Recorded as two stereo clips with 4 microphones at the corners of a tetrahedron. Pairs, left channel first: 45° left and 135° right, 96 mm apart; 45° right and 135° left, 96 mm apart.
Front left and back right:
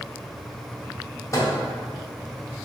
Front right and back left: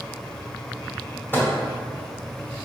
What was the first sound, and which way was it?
A microwave, 10° left.